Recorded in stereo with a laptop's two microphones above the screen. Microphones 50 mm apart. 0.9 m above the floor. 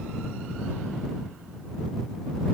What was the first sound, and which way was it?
Only background noise.